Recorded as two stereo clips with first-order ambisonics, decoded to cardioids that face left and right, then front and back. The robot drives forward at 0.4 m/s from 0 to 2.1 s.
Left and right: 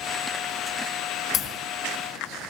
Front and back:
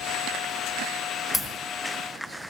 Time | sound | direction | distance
1.3 | a crack | 95° left | 1.4 m